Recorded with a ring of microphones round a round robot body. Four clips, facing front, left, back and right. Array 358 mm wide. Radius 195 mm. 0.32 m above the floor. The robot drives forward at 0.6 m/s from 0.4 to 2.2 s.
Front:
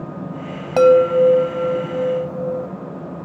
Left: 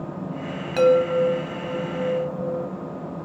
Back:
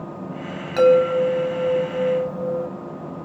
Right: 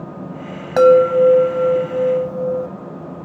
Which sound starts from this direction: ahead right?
A chime, at 0.8 s.